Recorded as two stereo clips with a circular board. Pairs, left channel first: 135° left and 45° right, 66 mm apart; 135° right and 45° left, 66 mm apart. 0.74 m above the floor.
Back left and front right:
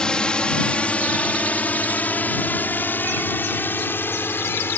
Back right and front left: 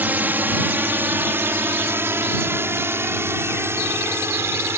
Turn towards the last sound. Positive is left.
turn(degrees=85)